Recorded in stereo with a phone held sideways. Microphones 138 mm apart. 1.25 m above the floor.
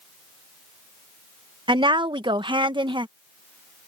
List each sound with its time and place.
1.7 s a woman speaking: 35° right (ahead or behind)